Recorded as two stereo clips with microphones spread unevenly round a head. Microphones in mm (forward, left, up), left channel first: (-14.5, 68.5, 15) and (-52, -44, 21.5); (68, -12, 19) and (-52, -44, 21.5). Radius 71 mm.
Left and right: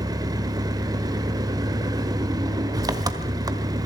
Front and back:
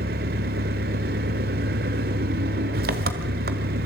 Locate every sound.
0.0 s an engine running: 165° right, 1.5 m